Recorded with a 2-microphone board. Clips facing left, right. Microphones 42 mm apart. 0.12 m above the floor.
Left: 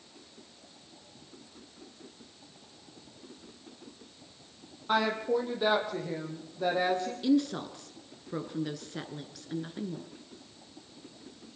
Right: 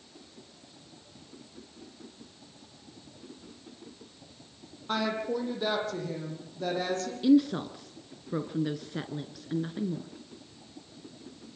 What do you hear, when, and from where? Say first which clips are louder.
4.9 s a woman speaking: left 2 dB; 10° left (ahead or behind), 5.5 m; by 7.1 s 15° left (ahead or behind), 7.5 m
7.2 s a woman speaking: right 5 dB; 10° right (ahead or behind), 1.2 m